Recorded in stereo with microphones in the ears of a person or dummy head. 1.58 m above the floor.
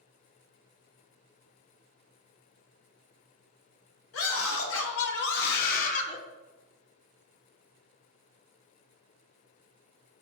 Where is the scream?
85° left, 3 m; by 6.2 s 35° left (ahead or behind), 1.2 m.